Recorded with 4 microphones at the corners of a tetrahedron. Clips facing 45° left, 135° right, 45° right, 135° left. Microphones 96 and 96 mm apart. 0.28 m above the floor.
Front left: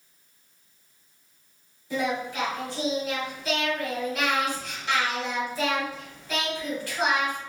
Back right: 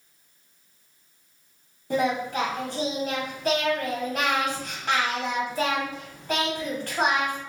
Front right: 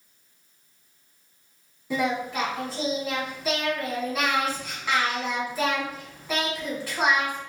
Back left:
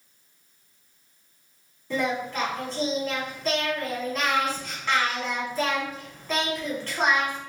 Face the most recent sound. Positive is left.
turn(degrees=-125)